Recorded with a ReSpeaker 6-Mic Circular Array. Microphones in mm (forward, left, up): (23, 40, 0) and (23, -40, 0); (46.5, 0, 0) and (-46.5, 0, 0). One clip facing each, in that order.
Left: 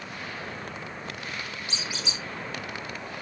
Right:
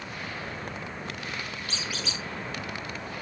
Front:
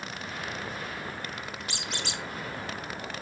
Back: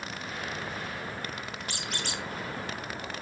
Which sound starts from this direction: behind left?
A squeak, at 1.7 s.